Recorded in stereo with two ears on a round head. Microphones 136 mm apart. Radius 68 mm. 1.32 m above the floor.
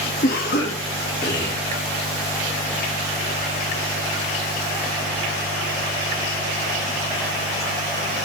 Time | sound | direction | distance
0.2 | a cough | 70° left (ahead or behind) | 2.5 m